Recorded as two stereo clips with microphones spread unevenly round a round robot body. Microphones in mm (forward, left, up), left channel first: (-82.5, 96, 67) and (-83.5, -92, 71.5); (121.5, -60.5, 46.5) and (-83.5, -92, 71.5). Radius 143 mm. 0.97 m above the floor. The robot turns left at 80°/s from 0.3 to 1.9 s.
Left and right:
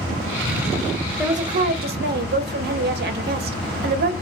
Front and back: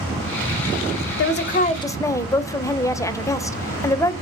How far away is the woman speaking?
About 0.6 m.